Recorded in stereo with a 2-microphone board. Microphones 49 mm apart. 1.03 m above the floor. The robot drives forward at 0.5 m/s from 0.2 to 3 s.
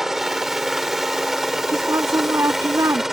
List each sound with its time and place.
0.0 s a helicopter: 5° right (ahead or behind)
1.7 s a woman speaking: 75° right (ahead or behind); by 3.0 s 80° right